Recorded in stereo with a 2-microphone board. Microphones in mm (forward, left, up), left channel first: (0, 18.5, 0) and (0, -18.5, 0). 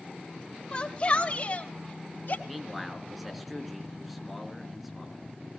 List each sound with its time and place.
0.7 s a shout: 25° left (ahead or behind), 1.8 m; by 2.4 s 50° left (ahead or behind), 3 m
2.5 s a man speaking: centre (ahead or behind), 4 m